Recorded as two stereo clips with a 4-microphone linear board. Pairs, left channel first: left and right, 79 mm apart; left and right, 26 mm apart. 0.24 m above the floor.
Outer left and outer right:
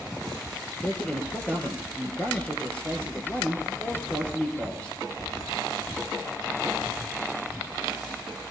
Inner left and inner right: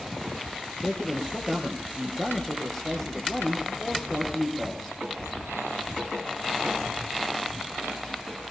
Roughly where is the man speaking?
Centre.